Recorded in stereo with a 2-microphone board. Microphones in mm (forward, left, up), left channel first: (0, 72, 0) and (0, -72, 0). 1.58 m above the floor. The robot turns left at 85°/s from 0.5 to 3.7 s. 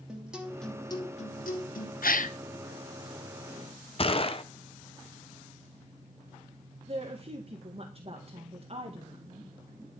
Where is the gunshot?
40° left (ahead or behind), 0.8 m.